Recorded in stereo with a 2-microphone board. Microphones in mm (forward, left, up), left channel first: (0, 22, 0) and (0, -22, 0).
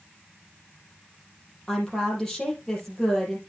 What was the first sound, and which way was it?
A woman speaking, 10° left (ahead or behind).